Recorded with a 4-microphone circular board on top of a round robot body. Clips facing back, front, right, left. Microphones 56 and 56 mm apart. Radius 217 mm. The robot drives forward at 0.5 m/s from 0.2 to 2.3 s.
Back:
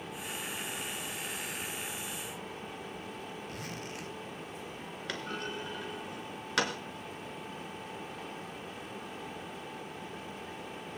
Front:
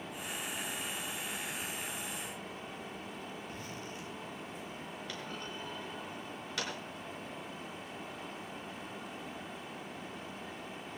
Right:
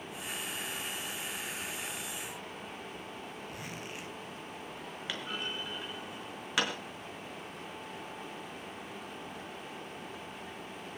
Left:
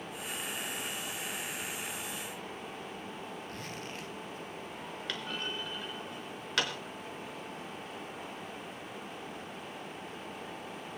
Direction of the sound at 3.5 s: 170° right.